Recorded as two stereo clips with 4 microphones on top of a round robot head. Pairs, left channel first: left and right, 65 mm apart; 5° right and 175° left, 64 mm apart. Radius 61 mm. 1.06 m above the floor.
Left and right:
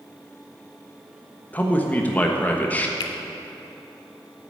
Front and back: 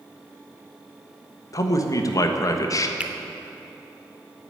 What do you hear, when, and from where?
1.5 s a man speaking: 20° left, 1.2 m
3.0 s a finger snap: 100° left, 1.0 m